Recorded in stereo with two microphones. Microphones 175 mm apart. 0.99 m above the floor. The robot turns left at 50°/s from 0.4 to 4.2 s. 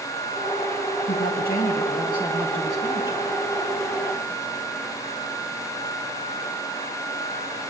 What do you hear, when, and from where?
1.1 s a woman speaking: 80° left, 8 m; by 3.2 s 25° right, 8 m